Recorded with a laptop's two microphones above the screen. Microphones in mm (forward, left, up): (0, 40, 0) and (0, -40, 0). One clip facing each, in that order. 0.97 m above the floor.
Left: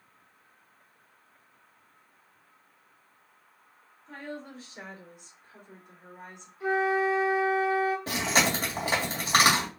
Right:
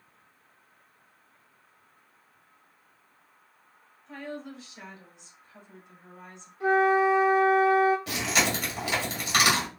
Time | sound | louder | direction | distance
4.1 | a woman speaking | right 2 dB | 40° left (ahead or behind) | 3 m
6.6 | a flute | right 4 dB | 55° right (ahead or behind) | 1.5 m
8.1 | chewing | left 1 dB | 35° left (ahead or behind) | 1.7 m